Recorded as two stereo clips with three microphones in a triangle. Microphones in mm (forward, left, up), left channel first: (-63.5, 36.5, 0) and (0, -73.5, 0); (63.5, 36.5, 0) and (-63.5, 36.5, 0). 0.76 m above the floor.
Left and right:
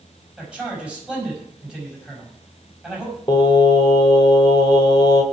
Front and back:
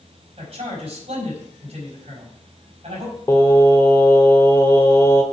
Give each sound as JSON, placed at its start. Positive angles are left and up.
{"t": 0.4, "sound": "a man speaking", "azimuth_deg": -140, "distance_m": 5.0}
{"t": 3.3, "sound": "singing", "azimuth_deg": 70, "distance_m": 1.3}